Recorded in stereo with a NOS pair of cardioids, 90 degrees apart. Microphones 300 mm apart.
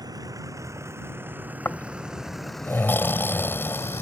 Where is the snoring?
5° left.